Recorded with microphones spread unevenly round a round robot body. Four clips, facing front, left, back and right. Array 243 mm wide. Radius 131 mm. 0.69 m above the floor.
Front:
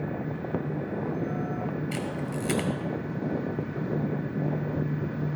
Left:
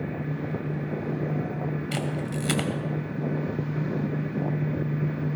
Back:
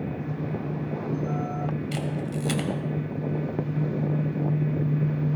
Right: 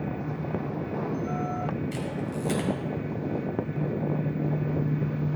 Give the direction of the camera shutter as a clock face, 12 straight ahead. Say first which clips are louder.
Left 2 dB, back 2 dB; 9 o'clock.